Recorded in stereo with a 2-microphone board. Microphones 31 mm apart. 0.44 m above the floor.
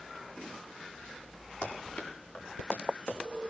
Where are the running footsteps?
75° left (ahead or behind), 6.5 m; by 3.2 s 85° left, 7 m.